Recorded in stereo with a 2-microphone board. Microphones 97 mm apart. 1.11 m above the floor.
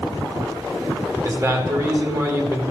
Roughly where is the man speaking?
Right.